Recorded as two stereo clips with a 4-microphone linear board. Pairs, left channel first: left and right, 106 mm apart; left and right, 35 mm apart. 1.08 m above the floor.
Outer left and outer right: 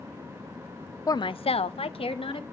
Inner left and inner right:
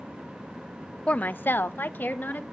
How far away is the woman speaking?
About 0.5 m.